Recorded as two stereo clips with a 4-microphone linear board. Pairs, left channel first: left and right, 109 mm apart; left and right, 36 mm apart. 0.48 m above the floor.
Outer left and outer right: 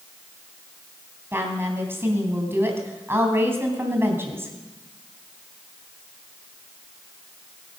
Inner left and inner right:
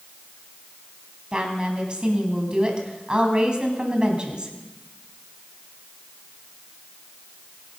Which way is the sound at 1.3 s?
20° right (ahead or behind).